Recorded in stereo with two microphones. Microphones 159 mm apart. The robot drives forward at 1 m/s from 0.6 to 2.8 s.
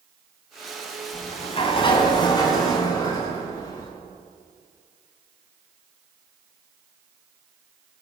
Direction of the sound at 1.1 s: 45° left (ahead or behind).